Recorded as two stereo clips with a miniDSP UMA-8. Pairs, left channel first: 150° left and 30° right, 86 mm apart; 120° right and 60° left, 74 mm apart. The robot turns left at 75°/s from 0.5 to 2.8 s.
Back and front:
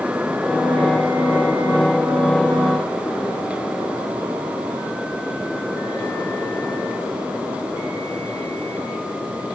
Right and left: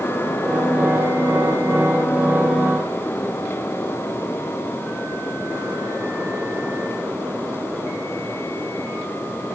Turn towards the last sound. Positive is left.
No sound to turn to.